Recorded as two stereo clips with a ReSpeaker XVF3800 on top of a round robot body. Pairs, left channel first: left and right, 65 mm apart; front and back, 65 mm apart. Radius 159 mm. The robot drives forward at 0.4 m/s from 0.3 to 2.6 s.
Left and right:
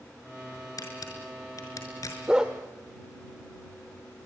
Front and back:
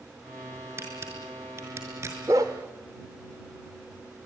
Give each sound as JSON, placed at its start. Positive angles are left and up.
{"t": 0.8, "sound": "a camera shutter", "azimuth_deg": 125, "distance_m": 5.0}
{"t": 2.3, "sound": "a dog barking", "azimuth_deg": -170, "distance_m": 0.8}